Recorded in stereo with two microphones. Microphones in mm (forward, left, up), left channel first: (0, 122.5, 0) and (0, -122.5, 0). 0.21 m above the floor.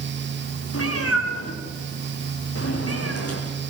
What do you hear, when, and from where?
0.7 s a cat meowing: 65° left (ahead or behind), 8 m; by 3.4 s 70° left (ahead or behind), 9.5 m